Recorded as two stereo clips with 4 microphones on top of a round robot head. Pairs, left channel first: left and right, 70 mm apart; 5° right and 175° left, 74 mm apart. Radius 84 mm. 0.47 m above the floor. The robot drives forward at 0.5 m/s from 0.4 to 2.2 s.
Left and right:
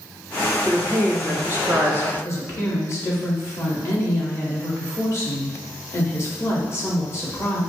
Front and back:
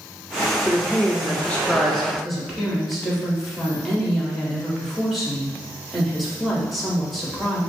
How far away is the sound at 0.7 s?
About 1.3 m.